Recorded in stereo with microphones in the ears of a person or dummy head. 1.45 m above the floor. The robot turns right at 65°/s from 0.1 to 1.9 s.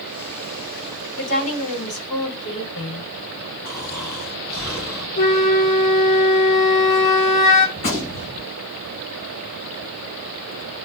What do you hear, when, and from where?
1.2 s a woman speaking: 115° left, 3.5 m; by 3.0 s 165° left, 3.5 m
3.6 s snoring: 20° left (ahead or behind), 4 m
5.2 s a flute: 35° left (ahead or behind), 0.9 m
7.8 s a gunshot: 35° left (ahead or behind), 1.5 m